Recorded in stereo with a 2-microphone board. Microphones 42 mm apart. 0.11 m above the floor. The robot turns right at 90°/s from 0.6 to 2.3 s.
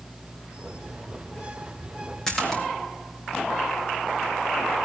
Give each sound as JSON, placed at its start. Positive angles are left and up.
{"t": 2.3, "sound": "a splash", "side_deg": 15, "distance_m": 4.0}